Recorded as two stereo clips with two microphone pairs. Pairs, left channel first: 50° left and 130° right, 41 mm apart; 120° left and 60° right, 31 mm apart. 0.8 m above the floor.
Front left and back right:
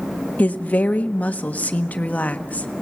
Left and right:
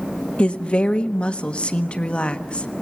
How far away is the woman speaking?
About 1.2 m.